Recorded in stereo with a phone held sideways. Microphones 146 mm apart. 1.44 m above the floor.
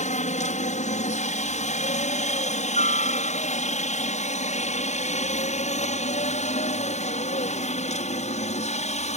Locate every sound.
0.0 s a helicopter: 55° left (ahead or behind); by 9.2 s 50° left (ahead or behind)